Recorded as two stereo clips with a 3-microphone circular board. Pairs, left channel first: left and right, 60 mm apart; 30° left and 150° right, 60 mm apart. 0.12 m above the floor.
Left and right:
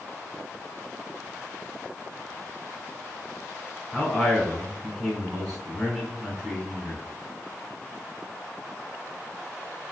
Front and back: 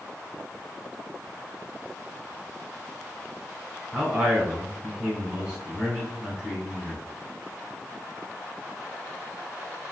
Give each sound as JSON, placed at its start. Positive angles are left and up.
{"t": 3.9, "sound": "a man speaking", "azimuth_deg": -175, "distance_m": 1.4}